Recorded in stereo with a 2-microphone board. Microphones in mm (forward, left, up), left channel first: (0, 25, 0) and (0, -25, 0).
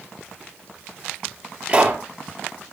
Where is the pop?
30° right (ahead or behind), 3.5 m.